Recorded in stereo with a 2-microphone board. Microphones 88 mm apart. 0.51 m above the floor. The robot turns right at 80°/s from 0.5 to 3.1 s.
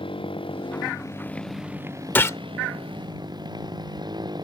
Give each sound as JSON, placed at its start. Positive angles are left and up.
{"t": 0.0, "sound": "a motorcycle", "azimuth_deg": 100}
{"t": 2.1, "sound": "a gunshot", "side_deg": 25}